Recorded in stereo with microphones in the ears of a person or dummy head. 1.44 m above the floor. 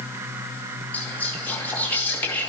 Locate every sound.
0.9 s whispering: 15° left (ahead or behind), 2.5 m